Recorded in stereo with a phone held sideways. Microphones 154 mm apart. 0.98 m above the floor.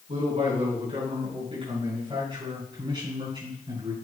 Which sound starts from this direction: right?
A man speaking, at 0.1 s.